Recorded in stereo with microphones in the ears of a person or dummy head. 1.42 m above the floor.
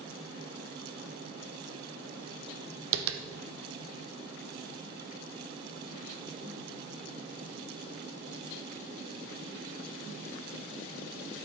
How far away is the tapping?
About 0.6 m.